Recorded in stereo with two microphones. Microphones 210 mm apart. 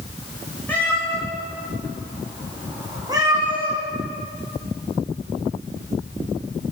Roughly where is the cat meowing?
Centre.